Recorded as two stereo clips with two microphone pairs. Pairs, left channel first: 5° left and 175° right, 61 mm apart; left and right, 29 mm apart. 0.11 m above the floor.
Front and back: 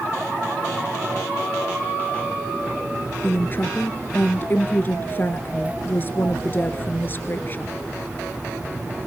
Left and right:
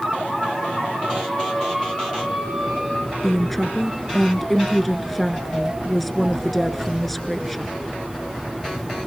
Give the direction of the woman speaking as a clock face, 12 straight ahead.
12 o'clock.